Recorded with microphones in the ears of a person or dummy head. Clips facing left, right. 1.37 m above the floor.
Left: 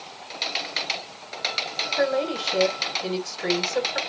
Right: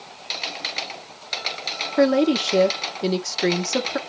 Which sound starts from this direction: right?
A woman speaking, at 2.0 s.